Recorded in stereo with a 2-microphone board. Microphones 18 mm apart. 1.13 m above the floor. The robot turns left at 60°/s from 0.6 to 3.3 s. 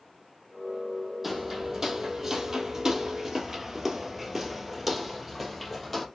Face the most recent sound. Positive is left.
turn(degrees=0)  # may be behind; listen again after turning